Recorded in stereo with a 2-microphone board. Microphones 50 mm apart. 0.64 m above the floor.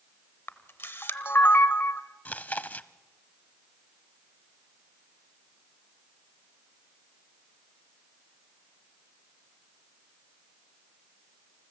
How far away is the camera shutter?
About 0.9 m.